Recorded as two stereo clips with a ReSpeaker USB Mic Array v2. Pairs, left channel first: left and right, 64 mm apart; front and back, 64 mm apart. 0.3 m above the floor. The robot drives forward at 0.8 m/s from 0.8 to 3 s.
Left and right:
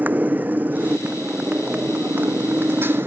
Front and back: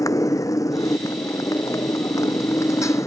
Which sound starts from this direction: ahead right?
A motorcycle, at 0.0 s.